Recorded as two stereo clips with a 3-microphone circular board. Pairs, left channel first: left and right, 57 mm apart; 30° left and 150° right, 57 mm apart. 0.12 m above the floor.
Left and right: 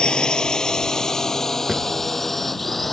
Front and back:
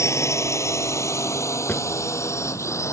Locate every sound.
0.0 s a drone: 20° left; by 2.9 s 5° left
1.7 s a drawer: 5° right